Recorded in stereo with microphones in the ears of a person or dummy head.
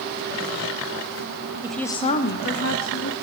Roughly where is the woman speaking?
Centre.